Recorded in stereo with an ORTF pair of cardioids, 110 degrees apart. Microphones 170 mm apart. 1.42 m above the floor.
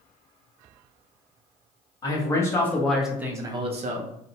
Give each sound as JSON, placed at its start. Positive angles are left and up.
{"t": 2.0, "sound": "a man speaking", "azimuth_deg": 25, "distance_m": 1.3}